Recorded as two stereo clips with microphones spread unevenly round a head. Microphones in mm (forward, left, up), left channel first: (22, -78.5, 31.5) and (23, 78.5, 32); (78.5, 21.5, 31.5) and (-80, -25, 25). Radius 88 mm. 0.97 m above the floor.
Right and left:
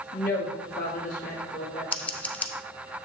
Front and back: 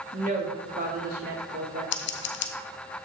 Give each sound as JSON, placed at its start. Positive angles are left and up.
{"t": 0.1, "sound": "a woman speaking", "azimuth_deg": -120, "distance_m": 1.8}
{"t": 1.9, "sound": "scissors", "azimuth_deg": -10, "distance_m": 0.6}